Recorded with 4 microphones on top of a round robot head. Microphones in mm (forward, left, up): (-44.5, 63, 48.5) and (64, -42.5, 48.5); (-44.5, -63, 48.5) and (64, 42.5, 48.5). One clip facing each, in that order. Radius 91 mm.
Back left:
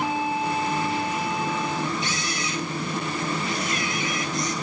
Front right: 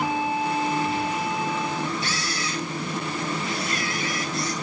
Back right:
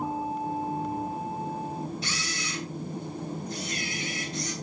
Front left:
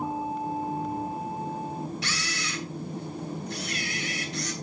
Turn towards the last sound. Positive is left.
turn(degrees=65)